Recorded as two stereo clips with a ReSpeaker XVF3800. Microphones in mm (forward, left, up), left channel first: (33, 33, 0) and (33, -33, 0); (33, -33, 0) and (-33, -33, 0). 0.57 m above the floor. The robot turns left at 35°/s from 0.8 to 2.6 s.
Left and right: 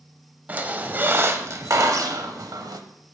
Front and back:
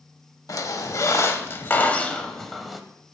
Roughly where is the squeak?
Ahead right.